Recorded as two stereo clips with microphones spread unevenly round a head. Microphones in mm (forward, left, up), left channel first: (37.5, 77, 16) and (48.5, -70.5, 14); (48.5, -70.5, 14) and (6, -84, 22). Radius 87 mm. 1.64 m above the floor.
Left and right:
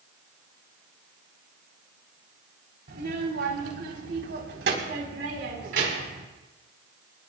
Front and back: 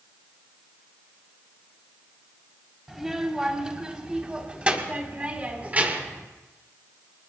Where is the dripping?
No dripping in this recording.